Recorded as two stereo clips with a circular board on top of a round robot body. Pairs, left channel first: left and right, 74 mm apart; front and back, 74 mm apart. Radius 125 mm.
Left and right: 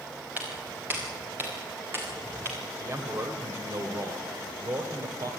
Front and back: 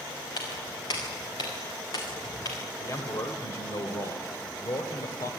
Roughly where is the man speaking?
Ahead right.